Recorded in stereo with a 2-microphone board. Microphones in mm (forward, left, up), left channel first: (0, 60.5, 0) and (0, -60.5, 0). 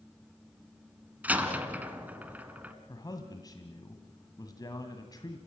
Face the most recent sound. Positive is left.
turn(degrees=30)  # may be behind; listen again after turning